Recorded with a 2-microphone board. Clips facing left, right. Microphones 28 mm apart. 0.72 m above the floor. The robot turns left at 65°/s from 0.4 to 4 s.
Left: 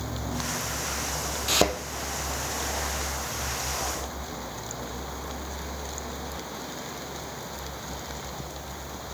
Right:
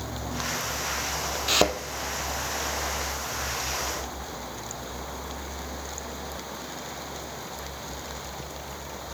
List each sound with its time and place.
1.5 s a thud: 15° right (ahead or behind), 0.9 m; by 1.8 s 5° right (ahead or behind), 0.9 m